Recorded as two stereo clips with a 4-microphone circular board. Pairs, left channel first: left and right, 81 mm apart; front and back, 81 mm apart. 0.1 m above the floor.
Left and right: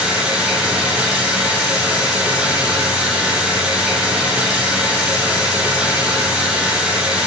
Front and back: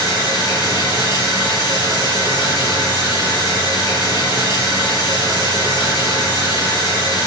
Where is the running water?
15° right, 3 m.